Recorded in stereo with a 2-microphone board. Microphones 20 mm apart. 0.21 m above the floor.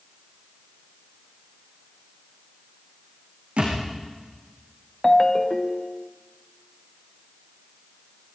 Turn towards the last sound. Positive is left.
turn(degrees=25)  # may be behind; listen again after turning